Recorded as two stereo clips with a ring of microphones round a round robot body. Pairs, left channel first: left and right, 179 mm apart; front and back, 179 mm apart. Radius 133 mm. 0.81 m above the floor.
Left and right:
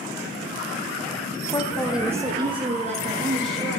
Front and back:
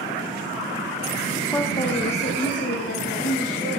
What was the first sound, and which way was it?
A woman speaking, 60° left.